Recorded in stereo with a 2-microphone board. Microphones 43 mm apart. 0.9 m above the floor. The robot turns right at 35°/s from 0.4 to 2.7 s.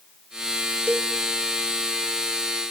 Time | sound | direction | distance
0.9 | a cowbell | 50° right (ahead or behind) | 1.9 m